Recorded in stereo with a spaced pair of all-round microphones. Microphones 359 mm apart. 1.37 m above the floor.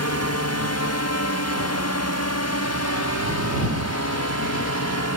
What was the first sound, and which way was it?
A drone, 45° left (ahead or behind).